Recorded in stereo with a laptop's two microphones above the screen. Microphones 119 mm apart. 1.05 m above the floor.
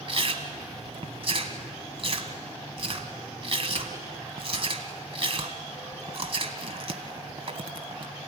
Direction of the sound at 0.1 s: 50° right (ahead or behind).